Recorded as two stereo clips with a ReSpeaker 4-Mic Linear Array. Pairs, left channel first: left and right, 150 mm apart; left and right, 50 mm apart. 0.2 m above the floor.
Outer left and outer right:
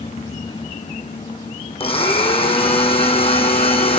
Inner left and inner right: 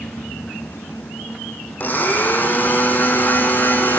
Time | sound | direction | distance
1.8 | a blender | 40° left (ahead or behind) | 2 m